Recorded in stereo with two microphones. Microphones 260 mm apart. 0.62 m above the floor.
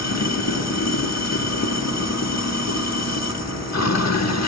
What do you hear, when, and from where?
0.0 s running water: 85° left, 0.9 m